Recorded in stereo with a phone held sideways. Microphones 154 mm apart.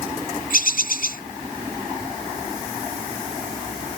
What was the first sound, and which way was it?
A bird, 70° left (ahead or behind).